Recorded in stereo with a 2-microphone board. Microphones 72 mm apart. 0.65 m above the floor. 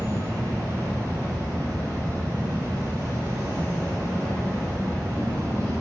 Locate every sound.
0.0 s an insect: 55° right (ahead or behind), 1.7 m